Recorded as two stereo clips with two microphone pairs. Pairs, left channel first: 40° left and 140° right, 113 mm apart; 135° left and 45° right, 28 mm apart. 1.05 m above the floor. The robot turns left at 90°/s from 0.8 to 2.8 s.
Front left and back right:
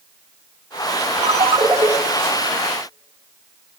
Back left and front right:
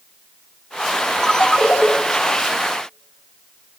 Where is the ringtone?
150° right, 0.9 m; by 1.9 s 145° left, 0.9 m.